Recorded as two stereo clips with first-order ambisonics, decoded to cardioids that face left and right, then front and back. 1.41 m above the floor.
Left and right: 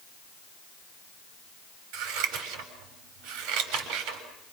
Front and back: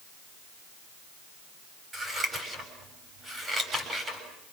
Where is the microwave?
No microwave in this recording.